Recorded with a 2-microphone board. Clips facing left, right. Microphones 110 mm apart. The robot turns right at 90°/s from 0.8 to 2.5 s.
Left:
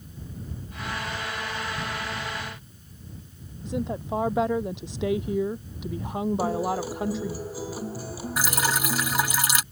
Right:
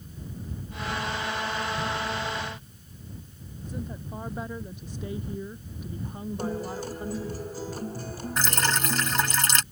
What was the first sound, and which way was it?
A woman speaking, 80° left.